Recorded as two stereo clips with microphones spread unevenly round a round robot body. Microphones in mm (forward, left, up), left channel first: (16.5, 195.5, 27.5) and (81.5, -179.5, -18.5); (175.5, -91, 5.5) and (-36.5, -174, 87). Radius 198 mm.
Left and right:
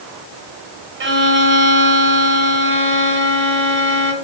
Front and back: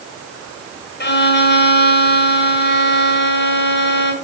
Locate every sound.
1.0 s a violin: 20° right, 1.7 m